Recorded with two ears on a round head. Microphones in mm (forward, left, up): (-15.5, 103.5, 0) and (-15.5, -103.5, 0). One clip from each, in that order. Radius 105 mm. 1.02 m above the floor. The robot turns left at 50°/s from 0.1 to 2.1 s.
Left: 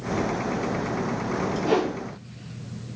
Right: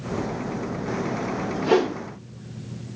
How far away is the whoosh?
About 0.8 m.